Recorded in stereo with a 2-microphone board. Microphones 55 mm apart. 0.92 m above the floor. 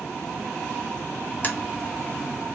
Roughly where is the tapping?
Left.